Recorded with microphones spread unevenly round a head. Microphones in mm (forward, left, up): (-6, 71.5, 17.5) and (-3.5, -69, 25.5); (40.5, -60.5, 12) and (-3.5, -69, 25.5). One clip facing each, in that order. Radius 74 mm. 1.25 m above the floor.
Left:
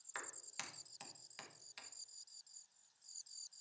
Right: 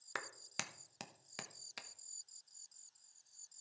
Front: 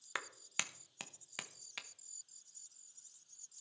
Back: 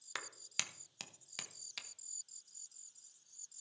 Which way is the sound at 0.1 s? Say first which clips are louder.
Right 5 dB, front 3 dB; 60° right.